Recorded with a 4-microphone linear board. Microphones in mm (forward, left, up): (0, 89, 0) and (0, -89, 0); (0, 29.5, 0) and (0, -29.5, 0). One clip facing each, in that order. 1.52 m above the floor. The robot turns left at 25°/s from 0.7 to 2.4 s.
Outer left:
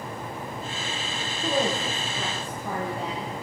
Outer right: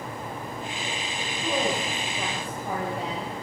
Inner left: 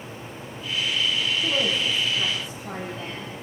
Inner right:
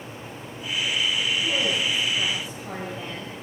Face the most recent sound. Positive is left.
turn(degrees=-15)  # may be behind; listen again after turning